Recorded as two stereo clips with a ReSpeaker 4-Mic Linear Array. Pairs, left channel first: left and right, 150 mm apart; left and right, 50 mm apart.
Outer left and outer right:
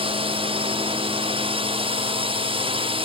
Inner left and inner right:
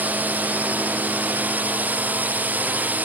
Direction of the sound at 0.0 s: 35° right (ahead or behind).